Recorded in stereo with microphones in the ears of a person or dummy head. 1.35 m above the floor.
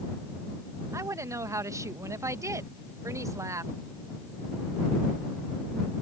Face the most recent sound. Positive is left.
turn(degrees=-15)  # may be behind; listen again after turning